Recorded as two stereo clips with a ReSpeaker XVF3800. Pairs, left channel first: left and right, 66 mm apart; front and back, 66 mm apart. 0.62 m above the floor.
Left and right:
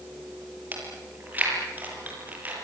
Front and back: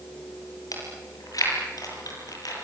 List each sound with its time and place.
0.7 s chewing: 25° right, 7.5 m